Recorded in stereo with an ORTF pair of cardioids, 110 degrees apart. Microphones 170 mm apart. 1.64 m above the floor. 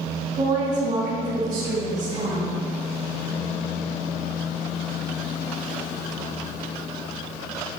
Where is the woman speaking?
40° right, 3 m.